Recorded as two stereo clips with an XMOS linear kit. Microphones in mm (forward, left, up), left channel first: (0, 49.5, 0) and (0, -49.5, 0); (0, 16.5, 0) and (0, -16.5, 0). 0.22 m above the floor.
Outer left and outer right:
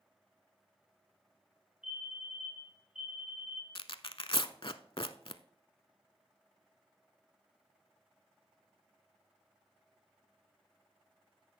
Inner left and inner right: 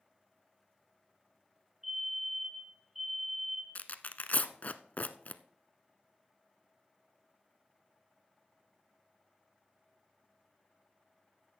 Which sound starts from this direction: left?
Tearing paper, at 3.8 s.